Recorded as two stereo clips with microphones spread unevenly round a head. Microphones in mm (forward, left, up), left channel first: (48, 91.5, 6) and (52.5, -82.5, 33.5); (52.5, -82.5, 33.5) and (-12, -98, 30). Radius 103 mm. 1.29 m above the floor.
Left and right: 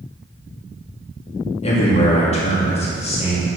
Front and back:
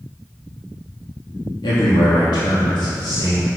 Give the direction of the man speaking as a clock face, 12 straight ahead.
11 o'clock.